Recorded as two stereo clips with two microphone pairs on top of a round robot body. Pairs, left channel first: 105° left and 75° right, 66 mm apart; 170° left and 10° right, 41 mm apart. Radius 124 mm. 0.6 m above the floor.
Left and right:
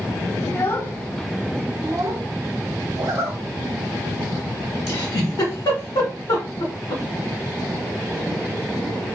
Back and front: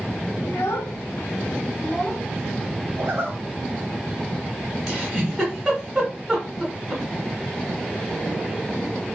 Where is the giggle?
75° left, 0.9 m.